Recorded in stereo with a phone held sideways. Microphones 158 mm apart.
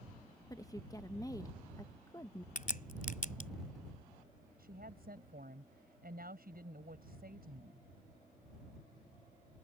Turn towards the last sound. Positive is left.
turn(degrees=-70)  # may be behind; listen again after turning